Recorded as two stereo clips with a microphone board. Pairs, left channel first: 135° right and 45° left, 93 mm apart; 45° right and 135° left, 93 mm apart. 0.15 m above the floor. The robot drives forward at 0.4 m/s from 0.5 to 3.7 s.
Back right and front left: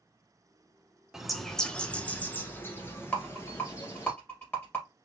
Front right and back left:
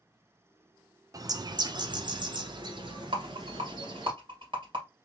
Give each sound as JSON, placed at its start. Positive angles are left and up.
{"t": 1.1, "sound": "a bird", "azimuth_deg": 125, "distance_m": 0.6}
{"t": 3.1, "sound": "a rattle", "azimuth_deg": 155, "distance_m": 2.0}